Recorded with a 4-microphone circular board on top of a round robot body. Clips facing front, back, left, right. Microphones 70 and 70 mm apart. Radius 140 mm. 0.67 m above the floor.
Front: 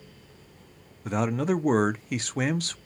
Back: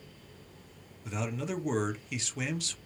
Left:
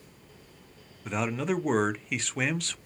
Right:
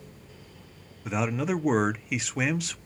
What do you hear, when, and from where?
1.1 s a man speaking: 5° right, 0.6 m